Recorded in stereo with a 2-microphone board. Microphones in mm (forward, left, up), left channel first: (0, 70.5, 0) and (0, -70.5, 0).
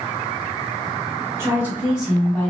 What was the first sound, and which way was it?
A woman speaking, 20° right (ahead or behind).